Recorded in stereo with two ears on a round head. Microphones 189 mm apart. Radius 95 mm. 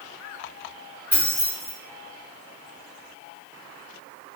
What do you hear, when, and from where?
1.1 s keys jangling: 10° right (ahead or behind), 1.8 m